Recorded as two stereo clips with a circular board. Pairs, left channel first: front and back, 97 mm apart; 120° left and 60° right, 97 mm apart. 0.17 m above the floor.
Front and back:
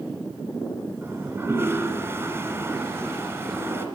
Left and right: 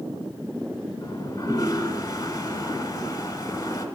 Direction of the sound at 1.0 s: 130° left.